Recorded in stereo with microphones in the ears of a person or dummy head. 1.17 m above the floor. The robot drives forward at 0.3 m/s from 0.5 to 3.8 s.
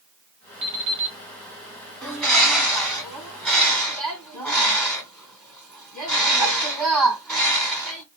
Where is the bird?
5° left (ahead or behind), 1.7 m.